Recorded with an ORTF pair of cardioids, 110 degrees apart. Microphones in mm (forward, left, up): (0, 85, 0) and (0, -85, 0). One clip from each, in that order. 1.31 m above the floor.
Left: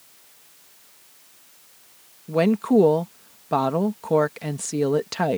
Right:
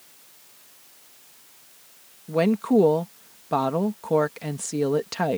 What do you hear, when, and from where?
2.3 s a woman speaking: 15° left